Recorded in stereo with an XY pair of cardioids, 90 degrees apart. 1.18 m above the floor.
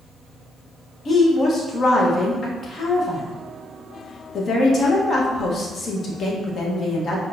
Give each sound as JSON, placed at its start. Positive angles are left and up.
{"t": 1.1, "sound": "a woman speaking", "azimuth_deg": 60, "distance_m": 1.1}